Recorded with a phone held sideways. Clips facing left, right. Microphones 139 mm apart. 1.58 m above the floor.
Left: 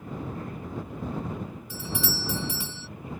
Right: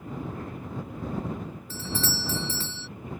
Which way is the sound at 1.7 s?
15° left (ahead or behind).